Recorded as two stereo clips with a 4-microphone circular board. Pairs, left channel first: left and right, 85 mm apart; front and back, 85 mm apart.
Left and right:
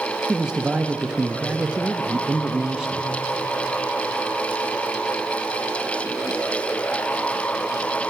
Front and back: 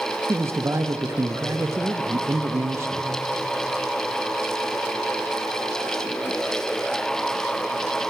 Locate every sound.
0.3 s a man speaking: 160° right, 0.6 m